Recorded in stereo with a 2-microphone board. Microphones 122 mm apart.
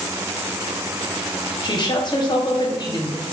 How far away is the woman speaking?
About 0.7 m.